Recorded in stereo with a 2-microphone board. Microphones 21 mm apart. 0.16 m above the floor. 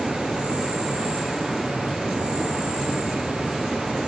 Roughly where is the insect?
Right.